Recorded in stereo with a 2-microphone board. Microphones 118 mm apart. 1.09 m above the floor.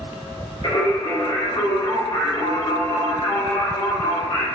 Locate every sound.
0.6 s singing: 60° left (ahead or behind), 1.3 m